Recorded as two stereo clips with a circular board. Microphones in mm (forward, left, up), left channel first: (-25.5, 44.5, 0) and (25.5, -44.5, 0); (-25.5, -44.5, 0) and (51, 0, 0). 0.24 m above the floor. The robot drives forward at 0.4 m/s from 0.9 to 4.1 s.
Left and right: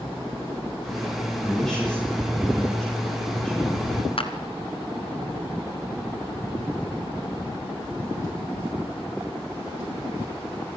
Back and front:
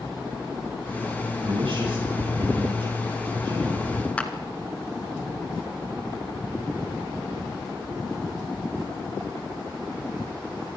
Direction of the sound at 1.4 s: 35° left.